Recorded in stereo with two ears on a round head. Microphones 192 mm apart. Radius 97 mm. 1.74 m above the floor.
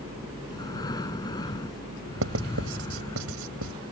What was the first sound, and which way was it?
Breathing, 20° left (ahead or behind).